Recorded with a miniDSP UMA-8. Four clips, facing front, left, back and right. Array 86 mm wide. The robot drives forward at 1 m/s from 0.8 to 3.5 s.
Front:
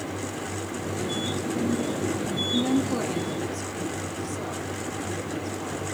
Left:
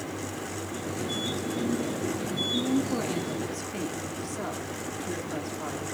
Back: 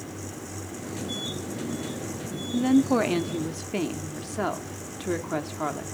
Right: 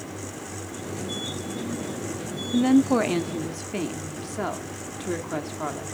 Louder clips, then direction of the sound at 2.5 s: Right 9 dB, back 5 dB; 90° right.